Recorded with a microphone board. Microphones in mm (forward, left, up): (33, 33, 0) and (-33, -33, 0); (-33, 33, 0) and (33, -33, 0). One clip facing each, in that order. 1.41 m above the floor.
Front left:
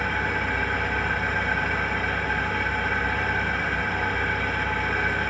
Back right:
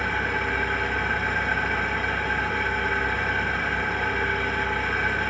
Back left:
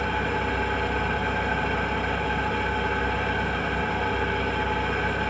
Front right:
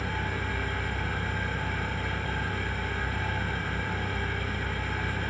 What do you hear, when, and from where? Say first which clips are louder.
0.0 s an engine running: even, back left 7 dB; 135° left, 1.8 m